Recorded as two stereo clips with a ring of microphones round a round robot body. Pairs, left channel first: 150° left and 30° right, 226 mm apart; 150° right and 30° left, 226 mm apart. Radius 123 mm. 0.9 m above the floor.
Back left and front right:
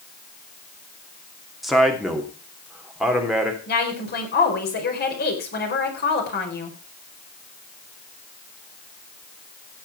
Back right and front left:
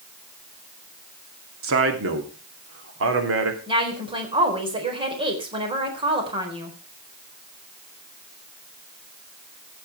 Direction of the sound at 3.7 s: 100° left.